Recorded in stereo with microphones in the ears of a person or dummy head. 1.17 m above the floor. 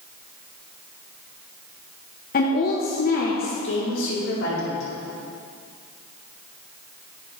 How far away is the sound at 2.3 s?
About 0.8 m.